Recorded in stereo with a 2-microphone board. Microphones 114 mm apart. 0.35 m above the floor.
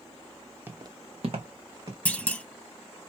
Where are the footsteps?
15° right (ahead or behind), 0.6 m; by 1.9 s 45° right (ahead or behind), 1.6 m.